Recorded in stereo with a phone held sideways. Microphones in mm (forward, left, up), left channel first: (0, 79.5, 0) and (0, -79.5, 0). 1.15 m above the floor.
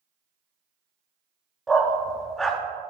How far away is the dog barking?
About 0.6 m.